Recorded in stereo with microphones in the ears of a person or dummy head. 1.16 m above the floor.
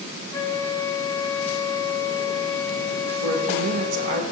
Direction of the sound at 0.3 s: 20° left (ahead or behind).